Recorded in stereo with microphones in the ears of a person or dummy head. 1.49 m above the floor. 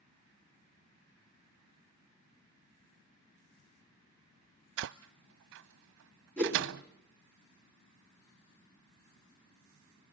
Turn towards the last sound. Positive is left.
turn(degrees=10)  # may be behind; listen again after turning